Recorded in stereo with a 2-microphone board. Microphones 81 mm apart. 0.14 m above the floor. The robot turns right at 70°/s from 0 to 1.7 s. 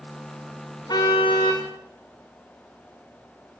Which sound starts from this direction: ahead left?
A car horn, at 0.9 s.